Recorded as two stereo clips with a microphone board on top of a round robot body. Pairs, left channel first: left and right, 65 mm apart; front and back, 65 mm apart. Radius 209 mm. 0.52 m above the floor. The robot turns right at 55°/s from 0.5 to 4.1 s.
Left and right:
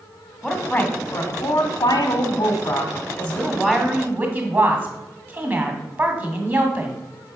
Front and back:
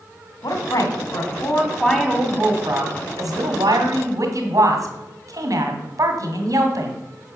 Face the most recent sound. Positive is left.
turn(degrees=-150)